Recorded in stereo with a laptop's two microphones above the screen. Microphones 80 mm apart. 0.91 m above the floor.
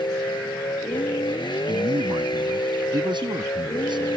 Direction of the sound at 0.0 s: 70° left (ahead or behind).